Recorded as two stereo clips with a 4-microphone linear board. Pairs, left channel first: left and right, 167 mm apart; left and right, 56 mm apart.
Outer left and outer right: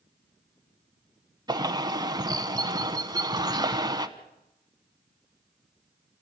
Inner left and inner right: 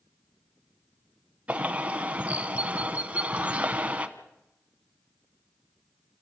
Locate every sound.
1.5 s a bird: 25° right (ahead or behind), 1.0 m